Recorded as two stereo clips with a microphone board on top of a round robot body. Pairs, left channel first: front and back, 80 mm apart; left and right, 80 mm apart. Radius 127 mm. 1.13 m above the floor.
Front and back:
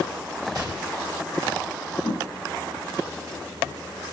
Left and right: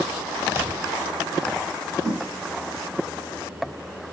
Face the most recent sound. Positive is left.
turn(degrees=-25)